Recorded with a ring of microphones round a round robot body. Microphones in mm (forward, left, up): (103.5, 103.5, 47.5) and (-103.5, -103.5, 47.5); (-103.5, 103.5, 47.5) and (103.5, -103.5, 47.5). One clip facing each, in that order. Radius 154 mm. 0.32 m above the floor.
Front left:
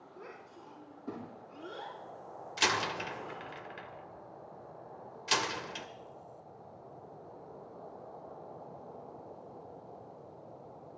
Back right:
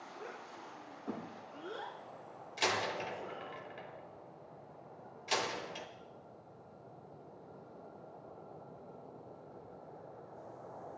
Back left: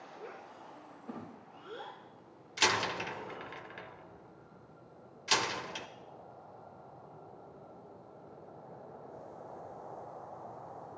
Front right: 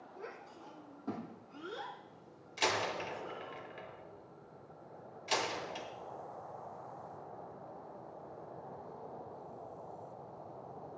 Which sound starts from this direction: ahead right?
A child speaking, at 0.2 s.